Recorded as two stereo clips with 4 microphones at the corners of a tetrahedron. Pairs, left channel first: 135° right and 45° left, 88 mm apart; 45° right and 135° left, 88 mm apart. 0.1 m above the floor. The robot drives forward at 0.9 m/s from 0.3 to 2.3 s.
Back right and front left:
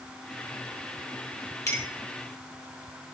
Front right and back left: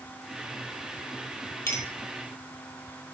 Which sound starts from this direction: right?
A clink, at 1.7 s.